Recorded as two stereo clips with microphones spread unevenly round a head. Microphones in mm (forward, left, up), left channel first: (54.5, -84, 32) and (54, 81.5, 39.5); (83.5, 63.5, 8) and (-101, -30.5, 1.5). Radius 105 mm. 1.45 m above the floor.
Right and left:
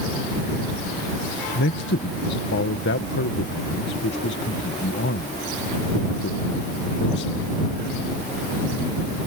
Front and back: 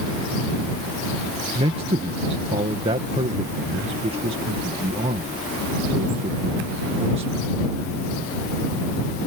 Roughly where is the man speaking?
Right.